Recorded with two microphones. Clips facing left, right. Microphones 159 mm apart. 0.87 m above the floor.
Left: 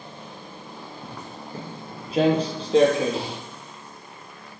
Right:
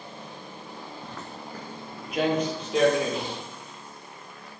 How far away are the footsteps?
About 0.8 m.